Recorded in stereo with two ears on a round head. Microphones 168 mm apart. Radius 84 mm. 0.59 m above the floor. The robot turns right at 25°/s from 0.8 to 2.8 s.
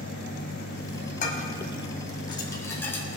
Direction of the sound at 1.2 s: 50° left (ahead or behind).